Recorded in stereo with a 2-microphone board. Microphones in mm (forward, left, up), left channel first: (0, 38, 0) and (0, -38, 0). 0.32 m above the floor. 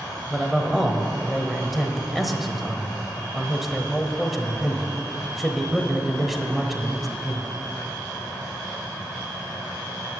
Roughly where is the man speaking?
Centre.